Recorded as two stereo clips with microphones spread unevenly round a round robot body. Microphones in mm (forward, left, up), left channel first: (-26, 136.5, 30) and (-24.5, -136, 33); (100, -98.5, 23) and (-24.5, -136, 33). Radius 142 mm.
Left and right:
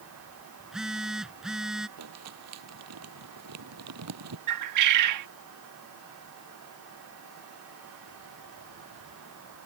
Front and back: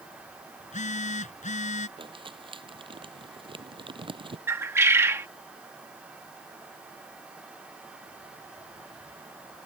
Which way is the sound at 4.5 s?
90° right.